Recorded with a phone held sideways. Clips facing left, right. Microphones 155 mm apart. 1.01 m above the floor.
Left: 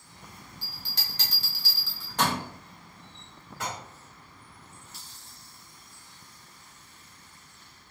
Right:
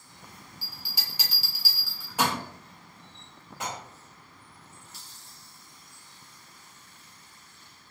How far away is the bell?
About 0.7 m.